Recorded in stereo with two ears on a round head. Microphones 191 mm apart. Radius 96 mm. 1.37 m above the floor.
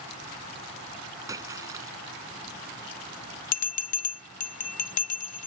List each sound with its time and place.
1.3 s a splash: 15° right (ahead or behind)
3.5 s a bell: 40° left (ahead or behind)